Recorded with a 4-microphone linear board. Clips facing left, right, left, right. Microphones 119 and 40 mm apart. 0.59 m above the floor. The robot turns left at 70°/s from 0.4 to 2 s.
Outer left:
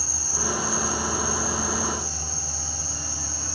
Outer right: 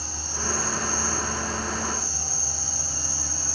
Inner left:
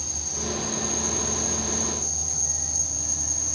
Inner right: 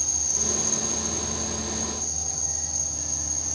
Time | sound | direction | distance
0.0 | an insect | 170° left | 0.7 m